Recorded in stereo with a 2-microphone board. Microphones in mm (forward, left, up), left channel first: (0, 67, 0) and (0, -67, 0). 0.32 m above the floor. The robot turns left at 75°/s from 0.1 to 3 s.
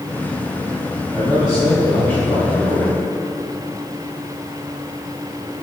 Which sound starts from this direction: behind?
A man speaking, at 1.1 s.